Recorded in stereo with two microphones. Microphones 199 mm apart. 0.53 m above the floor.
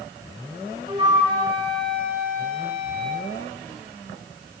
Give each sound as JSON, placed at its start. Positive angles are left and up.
{"t": 0.9, "sound": "a flute", "side_deg": -30, "distance_m": 4.5}